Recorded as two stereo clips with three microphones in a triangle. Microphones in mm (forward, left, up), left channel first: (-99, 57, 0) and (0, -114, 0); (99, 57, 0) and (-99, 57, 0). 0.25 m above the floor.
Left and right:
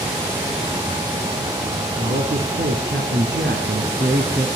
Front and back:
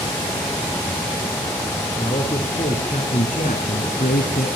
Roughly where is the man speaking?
Ahead right.